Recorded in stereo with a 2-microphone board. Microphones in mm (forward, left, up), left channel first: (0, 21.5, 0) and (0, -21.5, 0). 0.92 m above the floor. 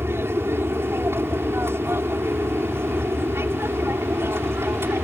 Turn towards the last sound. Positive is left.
turn(degrees=-60)  # may be behind; listen again after turning